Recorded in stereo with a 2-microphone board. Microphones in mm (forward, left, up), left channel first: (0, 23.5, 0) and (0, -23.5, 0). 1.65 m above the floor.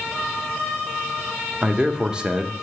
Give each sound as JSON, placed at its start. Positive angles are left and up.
{"t": 1.6, "sound": "a man speaking", "side_deg": -20, "distance_m": 0.6}